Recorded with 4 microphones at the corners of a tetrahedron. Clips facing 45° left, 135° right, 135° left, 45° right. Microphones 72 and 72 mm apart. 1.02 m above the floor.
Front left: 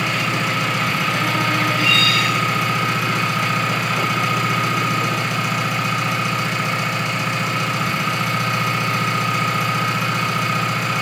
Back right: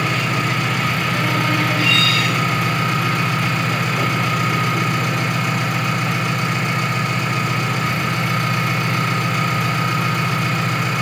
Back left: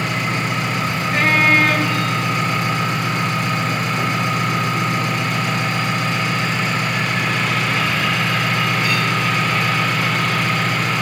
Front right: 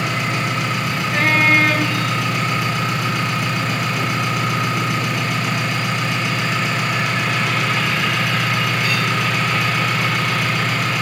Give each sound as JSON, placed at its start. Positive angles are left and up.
{"t": 0.0, "sound": "an engine running", "azimuth_deg": 180, "distance_m": 6.5}